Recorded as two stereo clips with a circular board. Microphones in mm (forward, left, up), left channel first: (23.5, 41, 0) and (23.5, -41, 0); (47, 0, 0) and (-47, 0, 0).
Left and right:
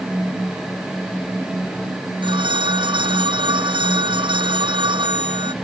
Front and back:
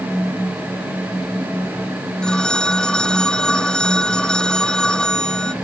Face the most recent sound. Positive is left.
turn(degrees=-80)